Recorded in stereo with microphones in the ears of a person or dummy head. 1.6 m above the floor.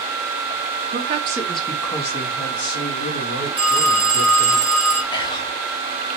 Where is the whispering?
20° left (ahead or behind), 0.7 m.